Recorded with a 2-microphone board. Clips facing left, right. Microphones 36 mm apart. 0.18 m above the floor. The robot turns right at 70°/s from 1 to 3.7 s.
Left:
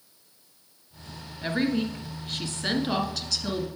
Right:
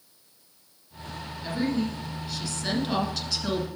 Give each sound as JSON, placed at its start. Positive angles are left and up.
{"t": 1.4, "sound": "a woman speaking", "azimuth_deg": 55, "distance_m": 1.5}